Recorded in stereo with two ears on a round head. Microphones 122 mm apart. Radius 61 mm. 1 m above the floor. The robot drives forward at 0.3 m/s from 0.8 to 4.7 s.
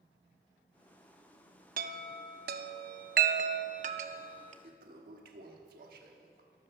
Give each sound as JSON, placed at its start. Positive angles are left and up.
{"t": 1.8, "sound": "a chime", "side_deg": -65, "distance_m": 0.8}
{"t": 4.6, "sound": "a toilet flushing", "side_deg": -70, "distance_m": 1.4}